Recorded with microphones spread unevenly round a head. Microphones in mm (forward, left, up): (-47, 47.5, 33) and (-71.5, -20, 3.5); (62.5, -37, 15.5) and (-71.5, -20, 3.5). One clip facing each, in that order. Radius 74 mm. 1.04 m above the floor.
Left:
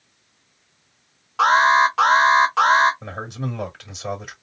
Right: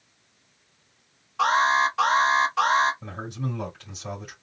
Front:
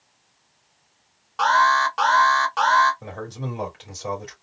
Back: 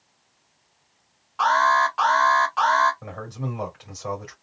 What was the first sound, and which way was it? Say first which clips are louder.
An alarm: left 6 dB, front 1 dB; 45° left.